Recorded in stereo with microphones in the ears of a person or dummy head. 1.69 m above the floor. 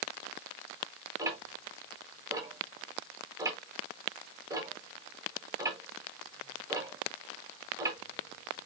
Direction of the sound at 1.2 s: 15° right (ahead or behind).